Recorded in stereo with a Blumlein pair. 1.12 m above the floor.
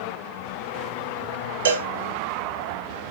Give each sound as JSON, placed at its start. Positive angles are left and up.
{"t": 1.6, "sound": "a cowbell", "azimuth_deg": -65, "distance_m": 2.0}